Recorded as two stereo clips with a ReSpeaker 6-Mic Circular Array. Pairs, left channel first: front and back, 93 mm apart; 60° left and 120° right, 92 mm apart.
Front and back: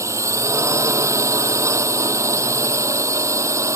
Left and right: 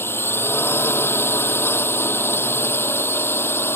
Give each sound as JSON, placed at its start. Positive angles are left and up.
{"t": 0.0, "sound": "a drone", "azimuth_deg": 125}